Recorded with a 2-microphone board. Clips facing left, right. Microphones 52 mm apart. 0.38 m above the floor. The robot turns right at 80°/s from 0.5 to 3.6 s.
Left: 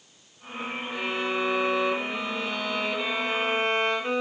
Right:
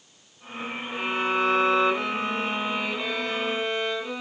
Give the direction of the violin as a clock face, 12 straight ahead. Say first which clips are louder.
Right 3 dB; 5 o'clock.